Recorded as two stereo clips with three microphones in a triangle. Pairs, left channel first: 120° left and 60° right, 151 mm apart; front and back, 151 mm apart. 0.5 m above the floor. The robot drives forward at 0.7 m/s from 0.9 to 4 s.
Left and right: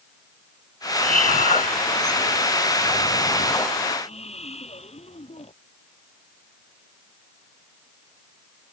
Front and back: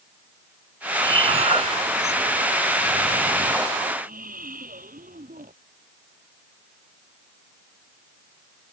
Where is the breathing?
125° left; by 5.5 s 165° left.